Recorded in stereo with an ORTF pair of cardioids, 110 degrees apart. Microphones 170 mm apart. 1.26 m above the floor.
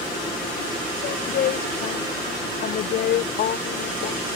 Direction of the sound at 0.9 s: 65° left.